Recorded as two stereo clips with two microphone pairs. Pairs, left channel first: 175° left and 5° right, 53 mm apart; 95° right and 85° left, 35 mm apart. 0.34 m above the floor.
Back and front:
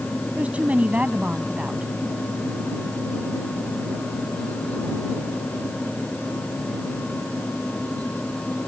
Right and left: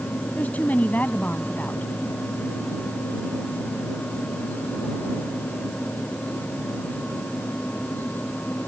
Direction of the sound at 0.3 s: 65° right.